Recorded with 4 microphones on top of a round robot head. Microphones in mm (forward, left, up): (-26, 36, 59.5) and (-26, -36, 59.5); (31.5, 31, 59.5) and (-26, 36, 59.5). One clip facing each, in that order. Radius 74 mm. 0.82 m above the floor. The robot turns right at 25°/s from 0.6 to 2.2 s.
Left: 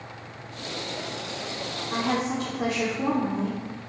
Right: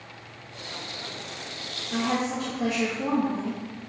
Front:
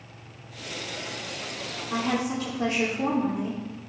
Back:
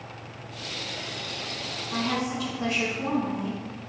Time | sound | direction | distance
1.9 | a woman speaking | 35° left | 1.9 m